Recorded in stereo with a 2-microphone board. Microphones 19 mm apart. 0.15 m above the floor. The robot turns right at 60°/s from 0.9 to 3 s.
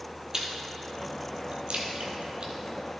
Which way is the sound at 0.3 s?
30° right (ahead or behind).